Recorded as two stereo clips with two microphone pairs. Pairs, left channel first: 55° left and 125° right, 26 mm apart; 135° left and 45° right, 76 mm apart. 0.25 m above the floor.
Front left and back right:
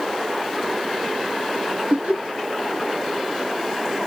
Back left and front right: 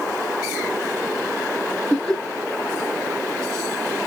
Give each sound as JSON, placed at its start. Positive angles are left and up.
{"t": 1.9, "sound": "laughter", "azimuth_deg": -130, "distance_m": 2.5}